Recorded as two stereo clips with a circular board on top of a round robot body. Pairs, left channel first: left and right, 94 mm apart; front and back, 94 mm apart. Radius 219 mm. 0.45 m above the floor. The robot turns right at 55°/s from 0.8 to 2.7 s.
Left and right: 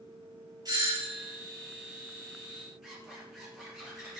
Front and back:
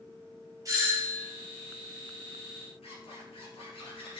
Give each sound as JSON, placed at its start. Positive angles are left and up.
{"t": 0.7, "sound": "a doorbell", "azimuth_deg": -130, "distance_m": 3.0}
{"t": 2.8, "sound": "a zipper", "azimuth_deg": -5, "distance_m": 3.0}